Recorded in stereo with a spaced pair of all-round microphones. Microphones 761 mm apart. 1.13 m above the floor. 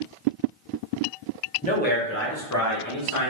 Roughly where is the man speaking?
Centre.